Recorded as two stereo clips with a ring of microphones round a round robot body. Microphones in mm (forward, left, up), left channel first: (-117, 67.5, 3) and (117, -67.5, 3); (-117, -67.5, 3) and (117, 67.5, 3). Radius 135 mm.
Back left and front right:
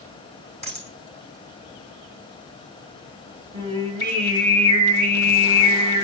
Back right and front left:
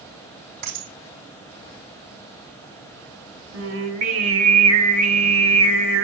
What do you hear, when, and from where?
0.6 s a dropped coin: 40° left, 3.5 m
3.5 s singing: 40° left, 1.4 m